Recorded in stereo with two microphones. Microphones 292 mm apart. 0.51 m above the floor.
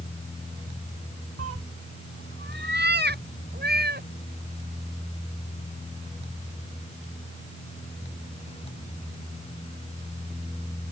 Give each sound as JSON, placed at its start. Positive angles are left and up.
{"t": 1.4, "sound": "a cat meowing", "side_deg": -60}